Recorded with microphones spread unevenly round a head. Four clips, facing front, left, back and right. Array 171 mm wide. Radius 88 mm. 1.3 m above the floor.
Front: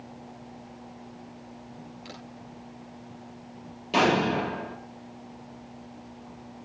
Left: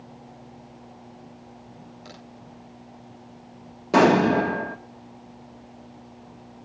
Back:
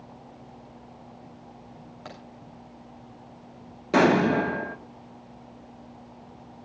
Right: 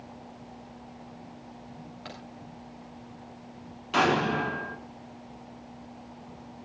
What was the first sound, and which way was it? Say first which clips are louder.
A crack: right 3 dB, back 4 dB; 160° right.